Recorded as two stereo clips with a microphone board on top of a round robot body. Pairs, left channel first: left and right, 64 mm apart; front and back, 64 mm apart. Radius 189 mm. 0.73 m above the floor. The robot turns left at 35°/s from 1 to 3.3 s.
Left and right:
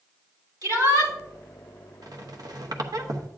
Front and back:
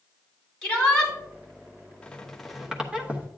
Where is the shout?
75° right, 4 m; by 1.1 s 80° right, 4 m.